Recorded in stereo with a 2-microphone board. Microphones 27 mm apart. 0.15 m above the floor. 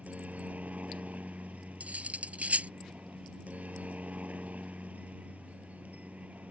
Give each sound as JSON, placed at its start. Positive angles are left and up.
{"t": 0.0, "sound": "a helicopter", "side_deg": -60}
{"t": 1.8, "sound": "cutlery clinking", "side_deg": -60}